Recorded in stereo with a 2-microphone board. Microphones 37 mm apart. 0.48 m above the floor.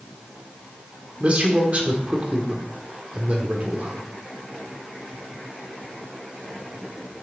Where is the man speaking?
35° right (ahead or behind), 1.4 m.